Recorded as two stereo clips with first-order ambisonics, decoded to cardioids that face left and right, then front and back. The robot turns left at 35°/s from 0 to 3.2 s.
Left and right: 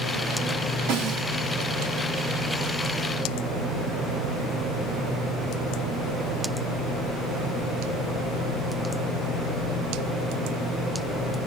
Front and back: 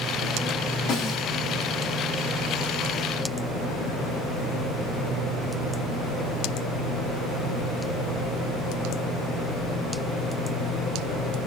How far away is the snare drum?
About 4.5 m.